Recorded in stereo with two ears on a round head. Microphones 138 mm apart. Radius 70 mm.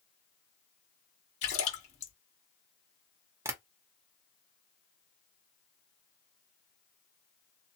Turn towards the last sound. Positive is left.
turn(degrees=-20)  # may be behind; listen again after turning